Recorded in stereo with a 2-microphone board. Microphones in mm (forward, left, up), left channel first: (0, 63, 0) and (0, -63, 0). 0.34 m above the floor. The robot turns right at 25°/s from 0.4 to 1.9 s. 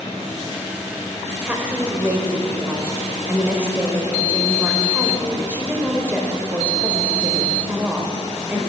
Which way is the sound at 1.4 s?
10° right (ahead or behind).